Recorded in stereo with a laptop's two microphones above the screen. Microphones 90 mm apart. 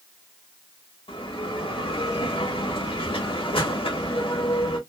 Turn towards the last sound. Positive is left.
turn(degrees=75)  # may be behind; listen again after turning